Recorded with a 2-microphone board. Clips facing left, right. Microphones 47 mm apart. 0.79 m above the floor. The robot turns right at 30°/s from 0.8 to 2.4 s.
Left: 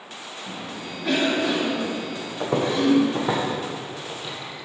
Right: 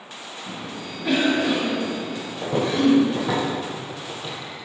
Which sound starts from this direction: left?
Footsteps, at 2.4 s.